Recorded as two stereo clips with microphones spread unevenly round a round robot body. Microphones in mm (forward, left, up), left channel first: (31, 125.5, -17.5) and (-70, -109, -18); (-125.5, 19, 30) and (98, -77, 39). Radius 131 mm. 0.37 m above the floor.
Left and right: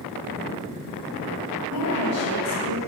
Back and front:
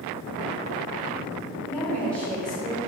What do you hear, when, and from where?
1.7 s a woman speaking: 75° left, 1.9 m; by 2.8 s 70° left, 1.4 m